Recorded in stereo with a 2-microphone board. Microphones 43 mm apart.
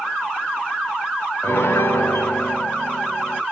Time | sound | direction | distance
1.4 | a piano | 80° left | 0.9 m